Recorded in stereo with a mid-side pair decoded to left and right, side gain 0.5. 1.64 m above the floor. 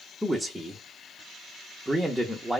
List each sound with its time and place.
0.2 s a man speaking: 5° right, 0.6 m